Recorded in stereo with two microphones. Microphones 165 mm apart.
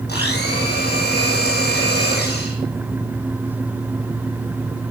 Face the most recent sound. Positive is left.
turn(degrees=75)  # may be behind; listen again after turning